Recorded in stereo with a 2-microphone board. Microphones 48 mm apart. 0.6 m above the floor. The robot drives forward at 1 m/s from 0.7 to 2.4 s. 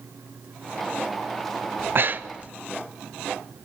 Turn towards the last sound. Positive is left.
turn(degrees=-30)  # may be behind; listen again after turning